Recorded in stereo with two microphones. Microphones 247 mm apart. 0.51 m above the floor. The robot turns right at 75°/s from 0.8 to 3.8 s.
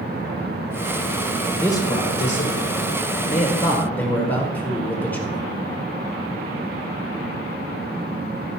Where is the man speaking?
5° left, 1.6 m; by 5.4 s 170° left, 1.6 m.